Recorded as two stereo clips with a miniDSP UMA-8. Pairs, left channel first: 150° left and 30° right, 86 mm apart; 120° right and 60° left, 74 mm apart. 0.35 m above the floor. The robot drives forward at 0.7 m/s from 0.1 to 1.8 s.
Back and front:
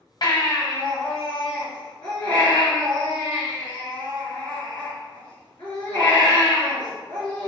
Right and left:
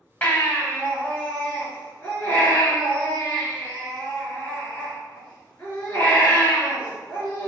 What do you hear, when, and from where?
0.2 s a baby crying: straight behind, 0.9 m